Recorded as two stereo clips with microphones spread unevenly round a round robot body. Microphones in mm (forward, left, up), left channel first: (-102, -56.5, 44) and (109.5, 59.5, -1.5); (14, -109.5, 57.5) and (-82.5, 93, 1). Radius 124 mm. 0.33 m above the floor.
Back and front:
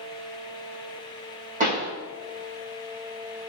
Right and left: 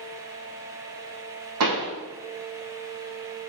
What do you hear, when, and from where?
1.6 s a pop: 90° left, 3 m